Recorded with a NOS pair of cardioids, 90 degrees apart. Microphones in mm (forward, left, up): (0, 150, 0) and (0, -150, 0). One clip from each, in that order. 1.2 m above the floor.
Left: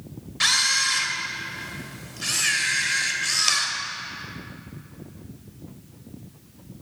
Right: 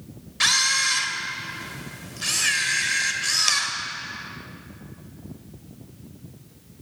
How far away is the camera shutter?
About 2.5 m.